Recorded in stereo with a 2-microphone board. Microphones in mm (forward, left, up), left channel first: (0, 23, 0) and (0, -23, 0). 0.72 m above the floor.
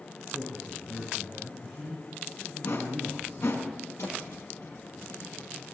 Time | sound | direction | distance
0.3 | a man speaking | 10° left (ahead or behind) | 9.5 m
2.6 | a whoosh | 80° left | 6 m
4.0 | a thud | 85° left | 9 m